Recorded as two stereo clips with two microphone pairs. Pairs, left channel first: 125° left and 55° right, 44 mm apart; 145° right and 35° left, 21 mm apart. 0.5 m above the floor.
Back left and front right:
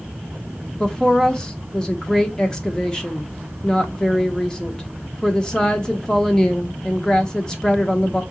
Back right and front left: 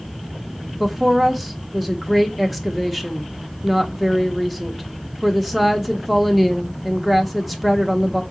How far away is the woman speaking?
About 0.6 m.